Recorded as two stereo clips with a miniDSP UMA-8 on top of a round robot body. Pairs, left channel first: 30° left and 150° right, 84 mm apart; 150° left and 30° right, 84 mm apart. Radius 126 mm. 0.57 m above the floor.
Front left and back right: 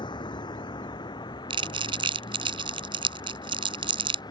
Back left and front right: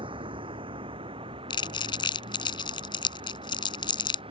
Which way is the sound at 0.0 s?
5° right.